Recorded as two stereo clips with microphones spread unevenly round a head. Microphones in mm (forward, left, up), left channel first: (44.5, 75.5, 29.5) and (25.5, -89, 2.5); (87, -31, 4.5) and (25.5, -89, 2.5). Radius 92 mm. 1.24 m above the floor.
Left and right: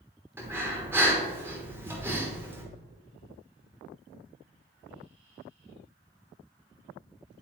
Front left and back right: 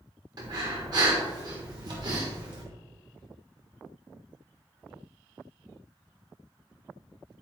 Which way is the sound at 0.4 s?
Straight behind.